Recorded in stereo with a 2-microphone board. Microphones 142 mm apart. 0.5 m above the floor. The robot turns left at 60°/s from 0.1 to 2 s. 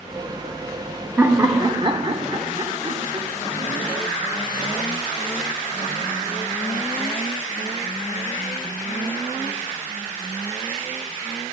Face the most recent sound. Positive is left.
turn(degrees=-70)